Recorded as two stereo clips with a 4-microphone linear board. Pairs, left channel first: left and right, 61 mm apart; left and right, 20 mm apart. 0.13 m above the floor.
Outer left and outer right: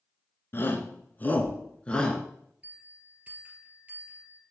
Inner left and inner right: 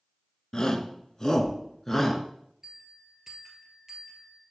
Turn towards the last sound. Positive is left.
turn(degrees=-25)  # may be behind; listen again after turning